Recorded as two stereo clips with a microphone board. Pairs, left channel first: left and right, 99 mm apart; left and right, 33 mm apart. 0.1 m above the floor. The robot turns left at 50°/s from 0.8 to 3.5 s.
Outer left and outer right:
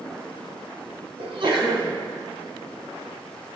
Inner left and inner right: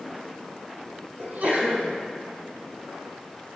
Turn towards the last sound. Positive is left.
turn(degrees=135)